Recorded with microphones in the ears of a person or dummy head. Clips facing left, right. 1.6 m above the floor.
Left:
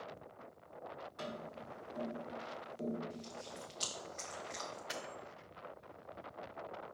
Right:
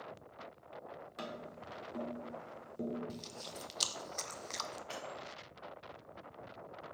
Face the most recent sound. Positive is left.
turn(degrees=20)  # may be behind; listen again after turning